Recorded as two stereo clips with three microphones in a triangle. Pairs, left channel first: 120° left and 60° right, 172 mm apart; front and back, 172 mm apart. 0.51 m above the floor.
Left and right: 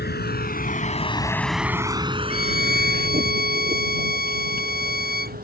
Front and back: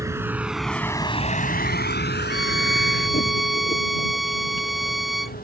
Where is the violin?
90° left.